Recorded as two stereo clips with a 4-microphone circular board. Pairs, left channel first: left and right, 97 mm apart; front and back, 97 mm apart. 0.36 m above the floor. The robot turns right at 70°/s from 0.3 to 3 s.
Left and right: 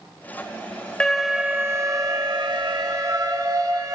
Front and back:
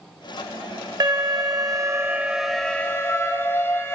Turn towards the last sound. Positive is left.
turn(degrees=-55)